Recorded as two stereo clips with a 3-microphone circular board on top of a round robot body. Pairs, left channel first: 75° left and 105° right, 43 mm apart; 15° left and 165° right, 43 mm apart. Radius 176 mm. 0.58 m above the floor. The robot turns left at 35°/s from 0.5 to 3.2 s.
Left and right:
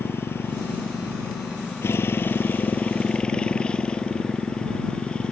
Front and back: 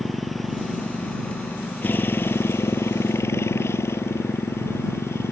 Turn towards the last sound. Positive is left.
turn(degrees=10)